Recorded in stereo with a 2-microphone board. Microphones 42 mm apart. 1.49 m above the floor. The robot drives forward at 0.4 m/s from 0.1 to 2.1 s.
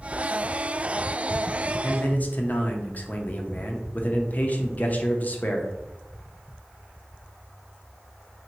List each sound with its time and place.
1.8 s a man speaking: 35° left (ahead or behind), 0.6 m; by 5.7 s 40° left (ahead or behind), 0.5 m